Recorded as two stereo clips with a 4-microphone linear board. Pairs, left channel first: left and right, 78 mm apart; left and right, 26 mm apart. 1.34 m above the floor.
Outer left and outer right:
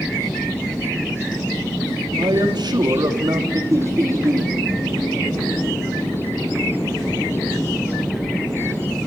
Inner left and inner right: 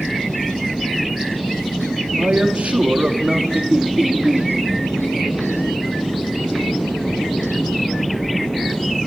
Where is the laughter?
40° right (ahead or behind), 3.5 m.